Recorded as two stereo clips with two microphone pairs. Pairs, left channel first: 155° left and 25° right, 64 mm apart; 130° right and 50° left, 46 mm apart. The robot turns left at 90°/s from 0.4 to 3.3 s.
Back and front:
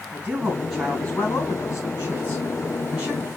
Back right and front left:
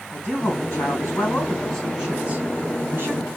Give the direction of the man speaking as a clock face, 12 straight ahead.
3 o'clock.